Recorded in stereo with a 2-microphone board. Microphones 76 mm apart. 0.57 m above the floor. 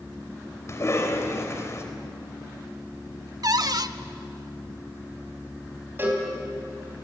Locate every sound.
0.7 s a cough: 40° left (ahead or behind), 3 m
3.4 s a cupboard door: 55° right (ahead or behind), 0.6 m
6.0 s a cowbell: 30° right (ahead or behind), 4 m